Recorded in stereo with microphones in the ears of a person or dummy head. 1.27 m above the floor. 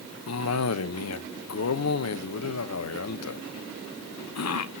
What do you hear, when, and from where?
0.3 s a cough: 80° left, 1.1 m